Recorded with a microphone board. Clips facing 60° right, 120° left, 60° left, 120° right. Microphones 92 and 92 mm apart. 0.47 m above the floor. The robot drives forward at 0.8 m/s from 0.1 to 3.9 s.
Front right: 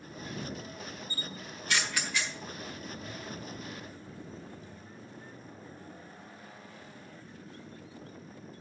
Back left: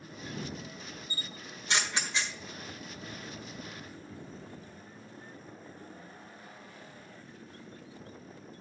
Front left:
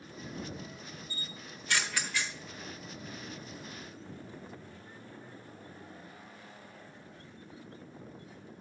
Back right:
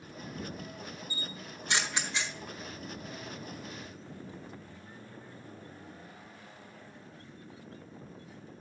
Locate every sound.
1.1 s a camera shutter: 175° left, 0.9 m; by 2.3 s straight behind, 1.6 m